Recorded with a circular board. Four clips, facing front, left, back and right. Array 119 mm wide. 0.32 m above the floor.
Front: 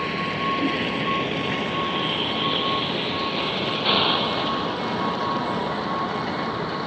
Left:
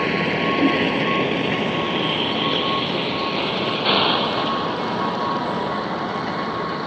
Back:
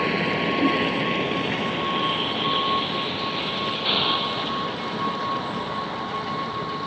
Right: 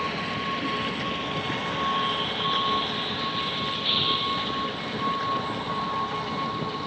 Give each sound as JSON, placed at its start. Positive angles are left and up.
{"t": 0.0, "sound": "a vehicle", "azimuth_deg": 115}